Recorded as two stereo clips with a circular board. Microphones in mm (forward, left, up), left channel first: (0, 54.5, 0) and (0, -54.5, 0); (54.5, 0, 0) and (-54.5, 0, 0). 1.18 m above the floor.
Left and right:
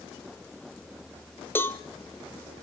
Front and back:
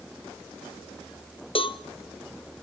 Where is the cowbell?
20° left, 0.7 m.